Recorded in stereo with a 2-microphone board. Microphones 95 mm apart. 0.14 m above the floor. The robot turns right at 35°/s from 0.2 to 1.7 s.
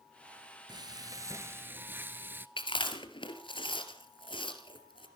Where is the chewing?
65° left (ahead or behind), 2 m.